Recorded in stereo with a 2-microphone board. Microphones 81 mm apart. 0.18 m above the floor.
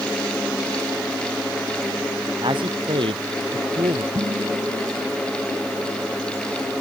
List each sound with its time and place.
2.4 s a man speaking: 75° right (ahead or behind); by 4.0 s 80° right
4.2 s dishes clattering: 55° right (ahead or behind)